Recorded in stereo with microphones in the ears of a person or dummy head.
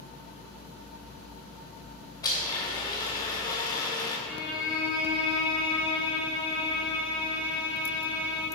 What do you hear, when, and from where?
2.2 s a blender: 25° left (ahead or behind), 2.5 m
4.2 s a violin: 5° right (ahead or behind), 2.5 m